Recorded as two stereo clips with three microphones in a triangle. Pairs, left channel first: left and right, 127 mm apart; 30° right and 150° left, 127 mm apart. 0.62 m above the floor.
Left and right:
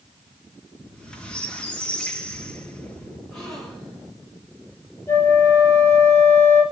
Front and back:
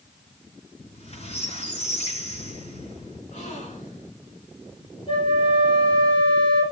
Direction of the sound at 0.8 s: 5° left.